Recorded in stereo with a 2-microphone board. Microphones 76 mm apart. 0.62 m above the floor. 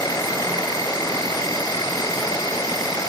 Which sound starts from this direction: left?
An insect, at 0.0 s.